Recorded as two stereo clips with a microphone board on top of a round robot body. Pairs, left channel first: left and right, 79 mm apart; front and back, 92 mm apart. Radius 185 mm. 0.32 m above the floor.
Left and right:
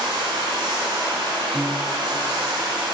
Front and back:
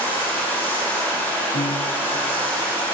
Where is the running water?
70° right, 5 m.